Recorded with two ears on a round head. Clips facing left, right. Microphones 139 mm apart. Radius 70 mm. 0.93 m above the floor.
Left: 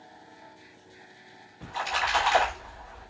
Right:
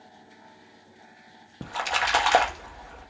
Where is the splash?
60° right (ahead or behind), 1.6 m.